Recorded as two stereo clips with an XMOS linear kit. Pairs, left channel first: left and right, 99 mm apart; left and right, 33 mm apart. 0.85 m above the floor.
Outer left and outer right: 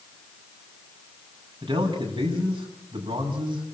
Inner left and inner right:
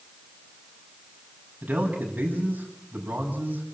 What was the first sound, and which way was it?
A man speaking, 50° right (ahead or behind).